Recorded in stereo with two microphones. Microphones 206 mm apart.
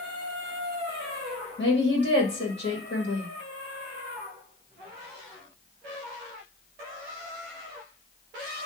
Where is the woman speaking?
55° left (ahead or behind), 1.7 m.